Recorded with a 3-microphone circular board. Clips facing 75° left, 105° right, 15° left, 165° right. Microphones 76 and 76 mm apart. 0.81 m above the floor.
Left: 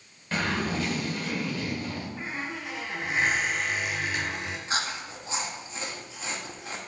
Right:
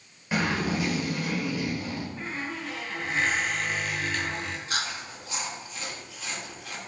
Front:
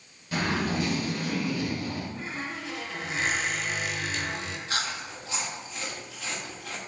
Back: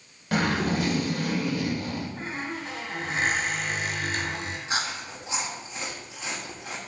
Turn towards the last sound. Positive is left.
turn(degrees=130)